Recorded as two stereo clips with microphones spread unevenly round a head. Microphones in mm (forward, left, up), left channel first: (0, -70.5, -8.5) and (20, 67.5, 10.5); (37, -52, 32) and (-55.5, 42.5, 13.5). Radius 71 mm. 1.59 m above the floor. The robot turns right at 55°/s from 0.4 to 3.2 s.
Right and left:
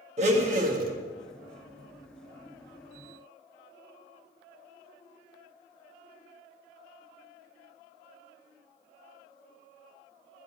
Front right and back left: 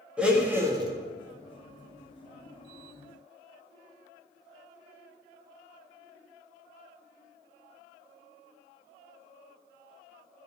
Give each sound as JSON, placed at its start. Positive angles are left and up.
{"t": 0.2, "sound": "a blender", "azimuth_deg": 50, "distance_m": 1.9}